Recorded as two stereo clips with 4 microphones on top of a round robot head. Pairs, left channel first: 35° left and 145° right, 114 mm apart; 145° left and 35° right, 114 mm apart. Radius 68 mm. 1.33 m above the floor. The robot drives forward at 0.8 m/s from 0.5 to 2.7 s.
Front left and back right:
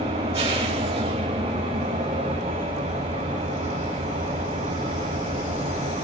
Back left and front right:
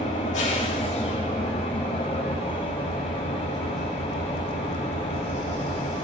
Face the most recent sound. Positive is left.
turn(degrees=175)